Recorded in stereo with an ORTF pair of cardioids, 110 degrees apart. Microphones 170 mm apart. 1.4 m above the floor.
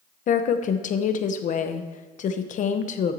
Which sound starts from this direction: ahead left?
A woman speaking, at 0.3 s.